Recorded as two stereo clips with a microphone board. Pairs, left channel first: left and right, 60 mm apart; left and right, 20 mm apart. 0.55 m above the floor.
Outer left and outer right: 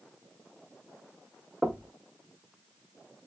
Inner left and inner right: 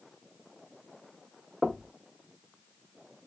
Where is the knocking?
20° right (ahead or behind), 0.5 m.